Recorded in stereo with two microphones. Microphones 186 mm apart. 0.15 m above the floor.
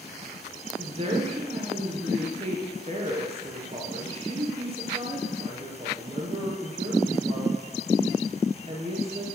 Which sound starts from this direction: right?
A woman speaking, at 0.8 s.